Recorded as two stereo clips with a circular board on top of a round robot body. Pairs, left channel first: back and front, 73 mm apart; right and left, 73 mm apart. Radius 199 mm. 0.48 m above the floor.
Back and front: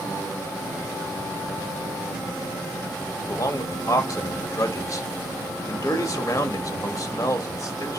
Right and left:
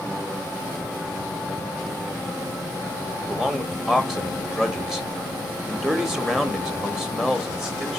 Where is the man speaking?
170° left, 1.4 m.